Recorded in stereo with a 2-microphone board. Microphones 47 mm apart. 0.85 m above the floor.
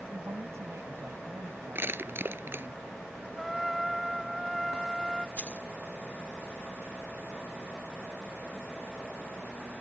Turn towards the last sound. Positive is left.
turn(degrees=35)  # may be behind; listen again after turning